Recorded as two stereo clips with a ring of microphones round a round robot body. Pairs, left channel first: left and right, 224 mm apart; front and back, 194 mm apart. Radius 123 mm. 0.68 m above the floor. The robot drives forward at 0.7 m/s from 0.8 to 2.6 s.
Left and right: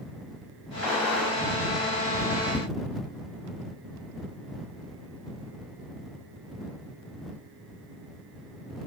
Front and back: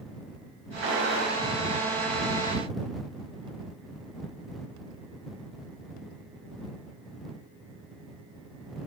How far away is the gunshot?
About 5.5 m.